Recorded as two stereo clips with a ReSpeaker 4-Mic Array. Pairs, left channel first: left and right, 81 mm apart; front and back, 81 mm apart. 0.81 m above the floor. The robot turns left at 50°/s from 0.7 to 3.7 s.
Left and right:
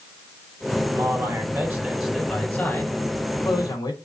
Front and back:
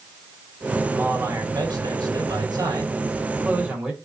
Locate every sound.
0.9 s a man speaking: 115° right, 1.7 m; by 4.0 s 105° left, 1.7 m